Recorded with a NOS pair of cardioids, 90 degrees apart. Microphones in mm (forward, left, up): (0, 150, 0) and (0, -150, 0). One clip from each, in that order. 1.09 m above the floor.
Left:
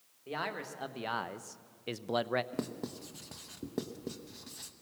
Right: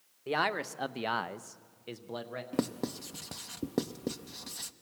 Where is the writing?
35° right, 0.7 m.